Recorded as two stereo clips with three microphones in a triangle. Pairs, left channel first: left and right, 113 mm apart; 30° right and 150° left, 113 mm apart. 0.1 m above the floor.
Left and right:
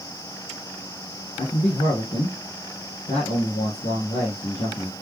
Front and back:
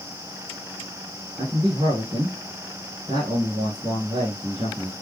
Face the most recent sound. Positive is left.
turn(degrees=100)